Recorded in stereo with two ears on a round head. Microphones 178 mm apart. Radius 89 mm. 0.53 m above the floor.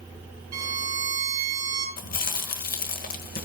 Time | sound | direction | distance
0.5 | a violin | 20° right (ahead or behind) | 3.5 m
2.0 | chewing | 50° left (ahead or behind) | 1.3 m